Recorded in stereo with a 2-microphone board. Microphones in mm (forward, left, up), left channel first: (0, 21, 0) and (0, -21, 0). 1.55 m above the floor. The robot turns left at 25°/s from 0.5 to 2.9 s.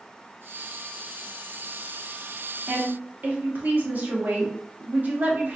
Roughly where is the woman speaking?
Right.